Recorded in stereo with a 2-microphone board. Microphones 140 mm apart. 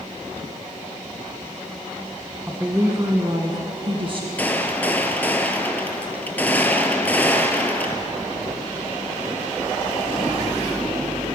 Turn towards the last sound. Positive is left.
turn(degrees=10)  # may be behind; listen again after turning